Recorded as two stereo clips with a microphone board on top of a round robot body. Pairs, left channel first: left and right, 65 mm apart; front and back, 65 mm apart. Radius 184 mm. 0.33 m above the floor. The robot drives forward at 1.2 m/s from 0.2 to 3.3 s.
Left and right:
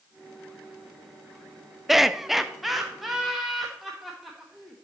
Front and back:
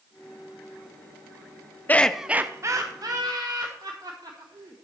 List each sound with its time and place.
1.9 s laughter: 5° right, 0.9 m; by 4.8 s straight behind, 1.6 m